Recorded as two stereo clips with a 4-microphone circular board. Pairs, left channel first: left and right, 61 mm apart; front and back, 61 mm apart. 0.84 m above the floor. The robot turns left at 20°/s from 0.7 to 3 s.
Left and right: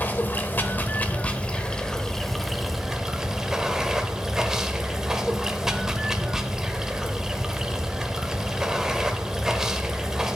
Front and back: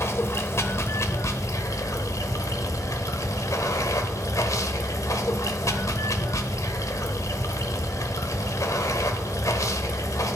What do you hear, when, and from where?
0.0 s running water: 35° left, 0.9 m; by 10.4 s 10° right, 0.9 m